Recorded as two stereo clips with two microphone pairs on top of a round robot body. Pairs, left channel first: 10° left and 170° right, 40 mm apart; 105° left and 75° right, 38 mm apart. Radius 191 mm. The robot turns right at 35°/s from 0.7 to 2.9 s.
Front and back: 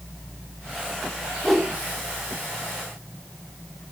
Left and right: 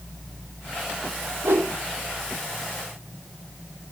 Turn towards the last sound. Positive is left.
turn(degrees=-25)